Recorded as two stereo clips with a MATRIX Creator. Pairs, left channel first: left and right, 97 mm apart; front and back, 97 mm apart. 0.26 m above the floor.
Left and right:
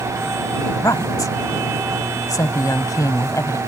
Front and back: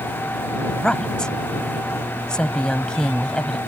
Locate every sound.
0.7 s a woman speaking: 75° left